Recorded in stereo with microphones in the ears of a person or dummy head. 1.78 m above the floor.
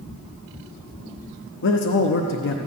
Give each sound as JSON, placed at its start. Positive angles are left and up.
{"t": 1.6, "sound": "a man speaking", "side_deg": 60, "distance_m": 0.7}